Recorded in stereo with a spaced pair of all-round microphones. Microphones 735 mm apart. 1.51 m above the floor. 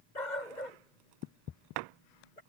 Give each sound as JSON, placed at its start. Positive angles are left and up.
{"t": 0.1, "sound": "a dog barking", "side_deg": 80}